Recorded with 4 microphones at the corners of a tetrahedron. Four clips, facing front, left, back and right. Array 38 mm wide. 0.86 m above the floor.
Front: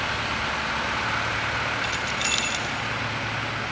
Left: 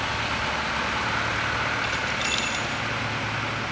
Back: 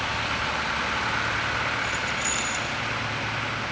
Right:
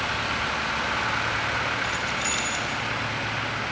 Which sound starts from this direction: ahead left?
Keys jangling, at 1.8 s.